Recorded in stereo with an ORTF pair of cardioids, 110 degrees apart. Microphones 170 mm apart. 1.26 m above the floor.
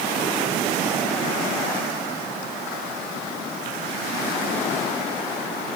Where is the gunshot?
No gunshot in this recording.